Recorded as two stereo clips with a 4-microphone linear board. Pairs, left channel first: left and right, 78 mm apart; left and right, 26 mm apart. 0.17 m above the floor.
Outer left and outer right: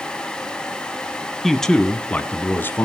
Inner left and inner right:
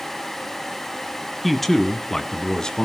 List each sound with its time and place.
1.4 s a man speaking: centre (ahead or behind), 1.2 m; by 2.9 s 30° left (ahead or behind), 1.5 m